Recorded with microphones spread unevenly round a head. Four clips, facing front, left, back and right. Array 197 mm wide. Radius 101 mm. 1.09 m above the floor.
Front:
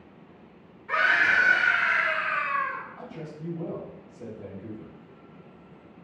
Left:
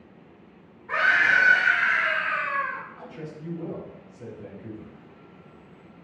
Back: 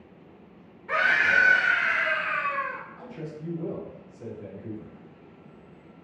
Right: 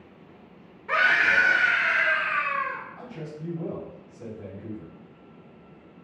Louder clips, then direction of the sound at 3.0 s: Right 1 dB, back 1 dB; 50° right.